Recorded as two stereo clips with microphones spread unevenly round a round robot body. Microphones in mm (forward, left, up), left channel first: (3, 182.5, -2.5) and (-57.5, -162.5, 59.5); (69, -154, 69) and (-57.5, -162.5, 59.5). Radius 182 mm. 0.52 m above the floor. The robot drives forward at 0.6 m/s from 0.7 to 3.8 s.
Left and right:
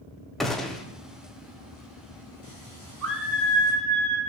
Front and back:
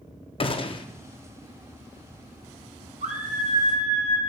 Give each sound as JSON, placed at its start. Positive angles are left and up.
{"t": 0.4, "sound": "a gunshot", "azimuth_deg": 5, "distance_m": 0.7}
{"t": 3.0, "sound": "a scream", "azimuth_deg": -160, "distance_m": 3.0}